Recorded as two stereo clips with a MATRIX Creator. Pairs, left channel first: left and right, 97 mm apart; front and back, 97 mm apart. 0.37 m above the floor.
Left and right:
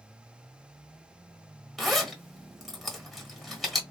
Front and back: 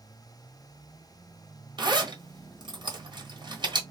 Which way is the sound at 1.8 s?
Straight behind.